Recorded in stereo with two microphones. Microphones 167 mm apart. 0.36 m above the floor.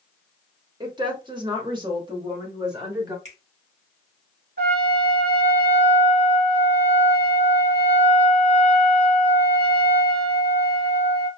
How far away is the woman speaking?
About 1.0 m.